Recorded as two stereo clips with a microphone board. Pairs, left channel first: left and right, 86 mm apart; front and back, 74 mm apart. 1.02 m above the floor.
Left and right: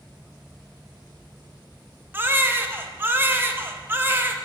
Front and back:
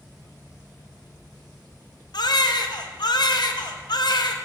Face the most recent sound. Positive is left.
turn(degrees=-25)